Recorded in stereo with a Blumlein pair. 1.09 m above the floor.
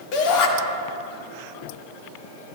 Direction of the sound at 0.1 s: 40° left.